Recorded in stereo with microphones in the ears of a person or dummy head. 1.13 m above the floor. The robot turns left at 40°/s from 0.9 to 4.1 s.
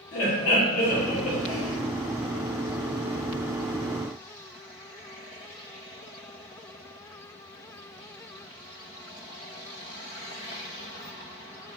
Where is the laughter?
50° left, 1.7 m; by 1.8 s 15° left, 1.7 m.